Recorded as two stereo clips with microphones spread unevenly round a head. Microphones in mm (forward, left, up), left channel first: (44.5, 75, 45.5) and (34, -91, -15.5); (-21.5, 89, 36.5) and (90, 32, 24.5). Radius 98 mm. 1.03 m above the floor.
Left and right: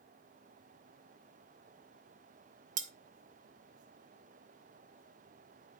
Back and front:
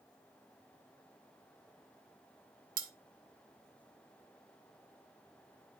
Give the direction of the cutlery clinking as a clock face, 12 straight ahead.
2 o'clock.